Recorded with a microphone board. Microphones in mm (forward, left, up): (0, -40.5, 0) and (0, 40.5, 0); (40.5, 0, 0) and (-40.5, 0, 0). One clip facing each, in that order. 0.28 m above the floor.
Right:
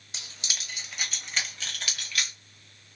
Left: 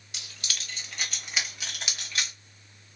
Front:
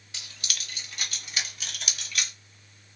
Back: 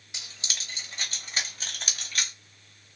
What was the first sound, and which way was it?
Keys jangling, 125° right.